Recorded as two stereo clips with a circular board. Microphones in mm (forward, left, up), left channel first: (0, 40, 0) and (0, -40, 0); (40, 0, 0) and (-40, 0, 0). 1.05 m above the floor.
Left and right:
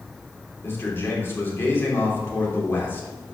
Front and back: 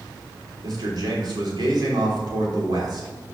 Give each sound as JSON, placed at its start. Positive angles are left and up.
{"t": 0.6, "sound": "a man speaking", "azimuth_deg": 150, "distance_m": 3.0}